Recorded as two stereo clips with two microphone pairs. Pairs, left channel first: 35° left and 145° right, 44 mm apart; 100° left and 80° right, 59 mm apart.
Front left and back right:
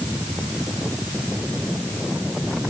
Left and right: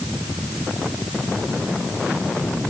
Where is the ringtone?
No ringtone in this recording.